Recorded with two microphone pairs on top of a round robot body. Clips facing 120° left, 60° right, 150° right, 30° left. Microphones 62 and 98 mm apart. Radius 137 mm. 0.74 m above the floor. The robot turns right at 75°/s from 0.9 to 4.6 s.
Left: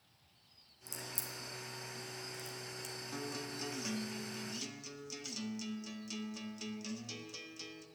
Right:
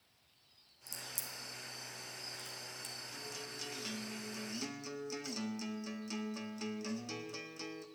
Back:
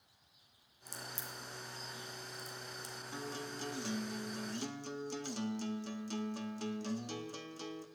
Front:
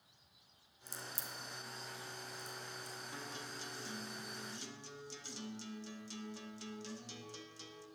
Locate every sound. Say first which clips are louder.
0.9 s a crack: left 2 dB, back 1 dB; 55° left, 2.5 m; by 3.0 s 150° right, 2.5 m
3.1 s a guitar: left 6 dB, back 8 dB; 135° left, 1.3 m; by 7.9 s 115° right, 1.3 m